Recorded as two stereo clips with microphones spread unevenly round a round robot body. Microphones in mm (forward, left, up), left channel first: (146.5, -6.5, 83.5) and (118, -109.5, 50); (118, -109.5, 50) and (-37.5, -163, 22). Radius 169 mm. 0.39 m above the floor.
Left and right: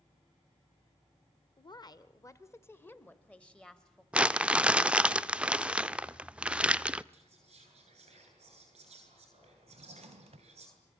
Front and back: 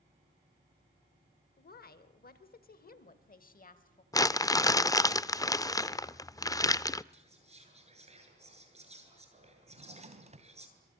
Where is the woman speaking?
25° left, 1.7 m; by 4.0 s 20° right, 3 m.